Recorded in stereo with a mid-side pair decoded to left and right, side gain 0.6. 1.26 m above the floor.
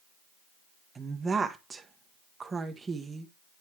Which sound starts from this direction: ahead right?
A woman speaking, at 0.9 s.